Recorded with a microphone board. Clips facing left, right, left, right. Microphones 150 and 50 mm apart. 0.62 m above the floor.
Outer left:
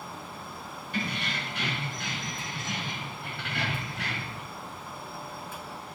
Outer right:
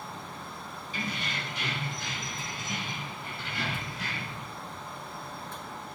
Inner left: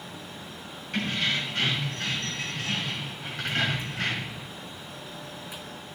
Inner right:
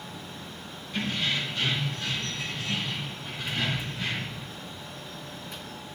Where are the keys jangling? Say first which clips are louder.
Outer left 3 dB, inner left 1 dB; 60° left (ahead or behind), 3.5 m; by 4.4 s 70° left (ahead or behind), 1.5 m.